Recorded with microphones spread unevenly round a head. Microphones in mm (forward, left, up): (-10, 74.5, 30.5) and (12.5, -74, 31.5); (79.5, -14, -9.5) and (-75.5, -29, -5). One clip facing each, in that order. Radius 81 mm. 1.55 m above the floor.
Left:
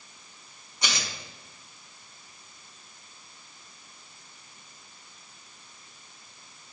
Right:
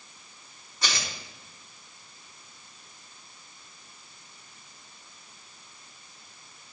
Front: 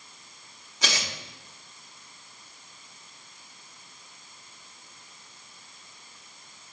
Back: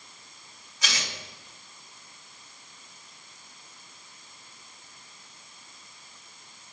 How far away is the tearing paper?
About 1.8 m.